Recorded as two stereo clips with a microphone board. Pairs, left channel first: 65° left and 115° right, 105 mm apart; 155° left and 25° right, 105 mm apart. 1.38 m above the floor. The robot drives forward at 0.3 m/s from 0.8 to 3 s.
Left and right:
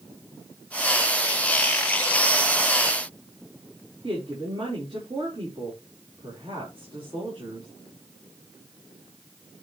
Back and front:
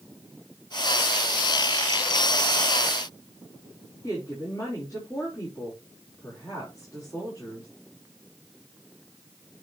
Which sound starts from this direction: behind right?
A woman speaking, at 4.0 s.